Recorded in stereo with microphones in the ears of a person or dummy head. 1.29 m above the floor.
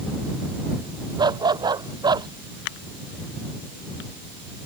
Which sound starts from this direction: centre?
A dog barking, at 1.2 s.